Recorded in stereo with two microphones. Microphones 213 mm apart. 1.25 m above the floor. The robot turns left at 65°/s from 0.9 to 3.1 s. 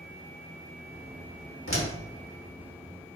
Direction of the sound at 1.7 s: 80° left.